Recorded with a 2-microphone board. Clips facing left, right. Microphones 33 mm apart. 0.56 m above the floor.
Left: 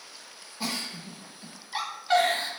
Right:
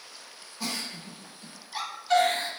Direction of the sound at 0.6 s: 25° left (ahead or behind).